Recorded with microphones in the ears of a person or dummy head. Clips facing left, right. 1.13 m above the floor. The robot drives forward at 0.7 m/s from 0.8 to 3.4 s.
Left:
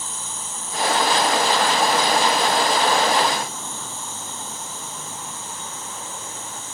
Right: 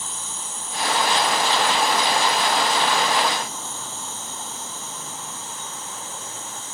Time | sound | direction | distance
0.0 | an insect | 40° left (ahead or behind) | 1.4 m